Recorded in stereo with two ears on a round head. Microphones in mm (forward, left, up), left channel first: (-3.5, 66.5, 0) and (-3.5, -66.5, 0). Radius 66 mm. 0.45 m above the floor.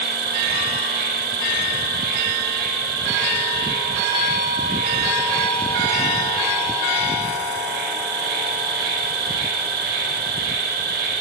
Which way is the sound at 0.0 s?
65° right (ahead or behind).